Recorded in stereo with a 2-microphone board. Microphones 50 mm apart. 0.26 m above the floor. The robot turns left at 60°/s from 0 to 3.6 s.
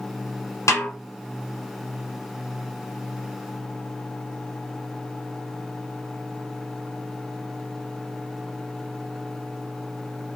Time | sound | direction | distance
0.7 | a snare drum | 70° left (ahead or behind) | 1.4 m